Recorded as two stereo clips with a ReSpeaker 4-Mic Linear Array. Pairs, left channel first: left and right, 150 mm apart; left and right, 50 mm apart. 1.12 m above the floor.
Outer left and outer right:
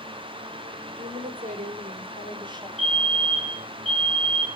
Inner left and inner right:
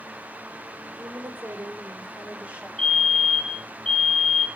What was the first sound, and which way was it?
A woman speaking, 75° right (ahead or behind).